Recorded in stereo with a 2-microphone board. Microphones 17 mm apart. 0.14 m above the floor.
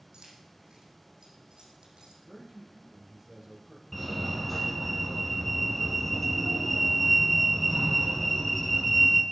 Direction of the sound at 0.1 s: 65° right (ahead or behind).